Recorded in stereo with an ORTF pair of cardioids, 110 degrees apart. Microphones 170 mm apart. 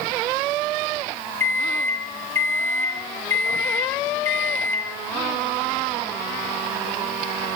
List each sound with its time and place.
1.4 s a microwave: 15° left, 1.3 m